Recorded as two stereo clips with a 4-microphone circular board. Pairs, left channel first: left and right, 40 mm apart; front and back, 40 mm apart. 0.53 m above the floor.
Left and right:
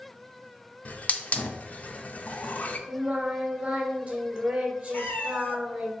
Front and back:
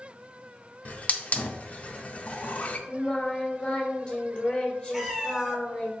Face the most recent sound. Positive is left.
turn(degrees=95)